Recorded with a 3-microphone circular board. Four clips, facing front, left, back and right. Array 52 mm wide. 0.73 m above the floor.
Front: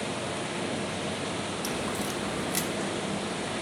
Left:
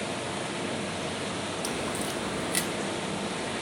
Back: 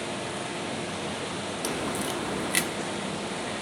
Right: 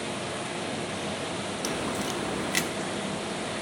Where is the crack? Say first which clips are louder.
Right 3 dB, back 4 dB; 150° right, 0.9 m.